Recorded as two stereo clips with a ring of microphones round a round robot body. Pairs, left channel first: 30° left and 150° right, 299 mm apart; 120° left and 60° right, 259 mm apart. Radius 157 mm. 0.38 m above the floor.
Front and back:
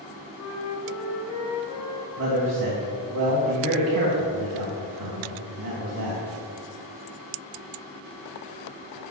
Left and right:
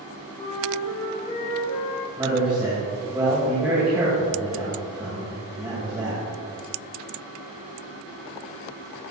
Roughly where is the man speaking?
Behind right.